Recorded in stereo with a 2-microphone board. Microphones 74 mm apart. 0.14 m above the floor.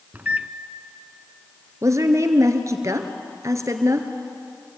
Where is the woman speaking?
45° right (ahead or behind), 2 m.